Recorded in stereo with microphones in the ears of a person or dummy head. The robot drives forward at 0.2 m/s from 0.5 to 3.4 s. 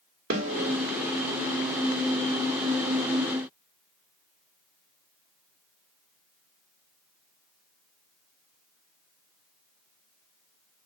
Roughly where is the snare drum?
Right.